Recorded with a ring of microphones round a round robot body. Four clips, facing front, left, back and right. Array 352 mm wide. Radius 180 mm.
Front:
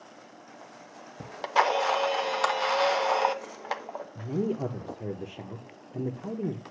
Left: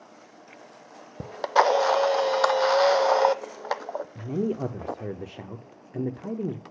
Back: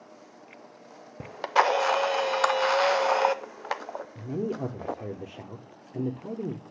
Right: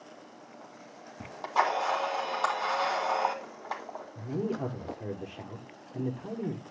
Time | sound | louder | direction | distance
1.2 | a camera shutter | left 7 dB, back 2 dB | 105° left | 0.6 m
4.2 | a man speaking | left 3 dB, front 2 dB | 85° left | 0.8 m